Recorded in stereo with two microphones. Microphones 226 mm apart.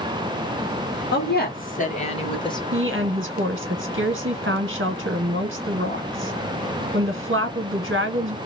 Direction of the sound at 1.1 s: 50° left (ahead or behind).